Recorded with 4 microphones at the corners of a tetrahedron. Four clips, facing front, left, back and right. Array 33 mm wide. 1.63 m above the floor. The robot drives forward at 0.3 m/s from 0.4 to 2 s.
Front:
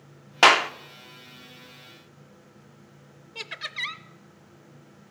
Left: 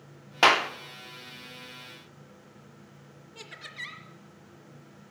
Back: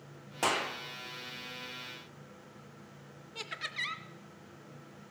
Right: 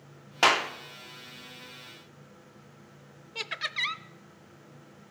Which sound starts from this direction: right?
Laughter, at 3.4 s.